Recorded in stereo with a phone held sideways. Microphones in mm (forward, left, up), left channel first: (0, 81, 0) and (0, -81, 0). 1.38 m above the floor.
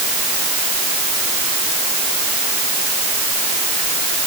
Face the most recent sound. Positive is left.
No sound to turn to.